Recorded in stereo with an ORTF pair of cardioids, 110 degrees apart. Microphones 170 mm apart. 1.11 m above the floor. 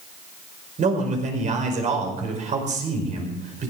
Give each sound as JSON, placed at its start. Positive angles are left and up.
{"t": 0.8, "sound": "a man speaking", "azimuth_deg": -45, "distance_m": 5.0}